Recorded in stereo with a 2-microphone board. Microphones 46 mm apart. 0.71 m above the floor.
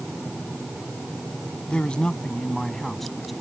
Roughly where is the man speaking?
Left.